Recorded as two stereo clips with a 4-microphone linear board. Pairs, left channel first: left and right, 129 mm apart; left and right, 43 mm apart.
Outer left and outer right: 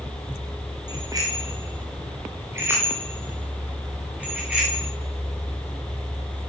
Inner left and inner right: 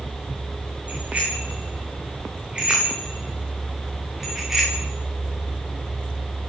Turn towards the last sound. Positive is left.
turn(degrees=-10)  # may be behind; listen again after turning